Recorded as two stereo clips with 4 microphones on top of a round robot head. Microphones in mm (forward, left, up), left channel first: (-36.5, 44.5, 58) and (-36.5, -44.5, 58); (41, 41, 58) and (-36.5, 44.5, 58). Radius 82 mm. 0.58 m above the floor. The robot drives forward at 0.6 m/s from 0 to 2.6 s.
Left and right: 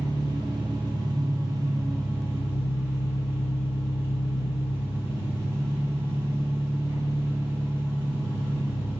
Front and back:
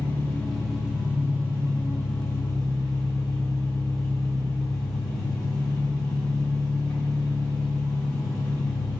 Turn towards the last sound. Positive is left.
turn(degrees=-150)